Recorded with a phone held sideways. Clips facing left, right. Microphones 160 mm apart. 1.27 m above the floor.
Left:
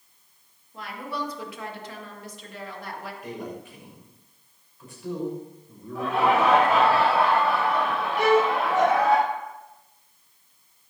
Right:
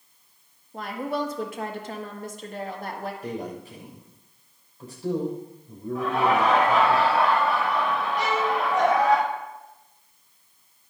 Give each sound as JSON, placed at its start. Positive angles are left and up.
{"t": 0.7, "sound": "a woman speaking", "side_deg": -45, "distance_m": 1.9}
{"t": 3.2, "sound": "a man speaking", "side_deg": -35, "distance_m": 5.5}
{"t": 6.0, "sound": "laughter", "side_deg": 30, "distance_m": 6.0}
{"t": 8.2, "sound": "a violin", "side_deg": 55, "distance_m": 0.8}